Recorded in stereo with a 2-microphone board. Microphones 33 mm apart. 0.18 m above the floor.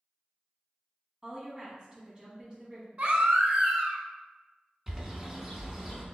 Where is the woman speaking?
25° right (ahead or behind), 1.1 m.